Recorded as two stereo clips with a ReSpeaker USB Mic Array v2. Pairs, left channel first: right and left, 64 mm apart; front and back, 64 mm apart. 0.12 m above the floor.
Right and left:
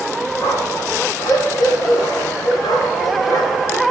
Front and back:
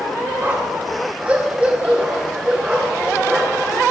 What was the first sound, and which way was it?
A dog barking, 120° right.